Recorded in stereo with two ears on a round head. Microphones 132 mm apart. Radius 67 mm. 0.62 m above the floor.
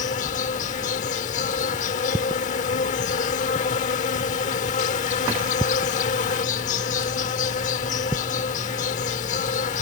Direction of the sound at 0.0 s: 55° left (ahead or behind).